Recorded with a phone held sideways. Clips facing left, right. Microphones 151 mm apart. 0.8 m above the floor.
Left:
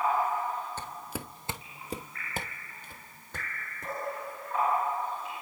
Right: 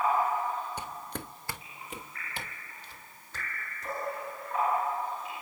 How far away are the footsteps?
About 0.8 m.